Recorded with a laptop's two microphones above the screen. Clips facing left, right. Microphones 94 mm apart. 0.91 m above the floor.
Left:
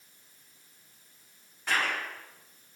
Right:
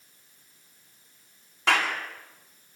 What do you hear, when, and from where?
1.7 s a clap: 80° right, 7 m